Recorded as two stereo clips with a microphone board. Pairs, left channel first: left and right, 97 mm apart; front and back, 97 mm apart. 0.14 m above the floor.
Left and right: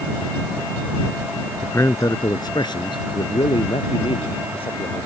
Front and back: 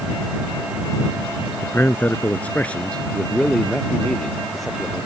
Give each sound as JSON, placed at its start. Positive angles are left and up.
{"t": 1.6, "sound": "a man speaking", "azimuth_deg": 50}